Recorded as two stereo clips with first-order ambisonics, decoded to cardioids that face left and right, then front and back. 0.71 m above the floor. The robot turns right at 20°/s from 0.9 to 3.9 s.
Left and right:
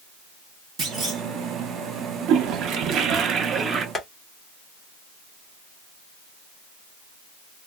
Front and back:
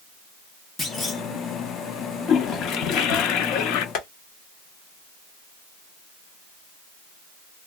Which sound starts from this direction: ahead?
Tapping, at 4.0 s.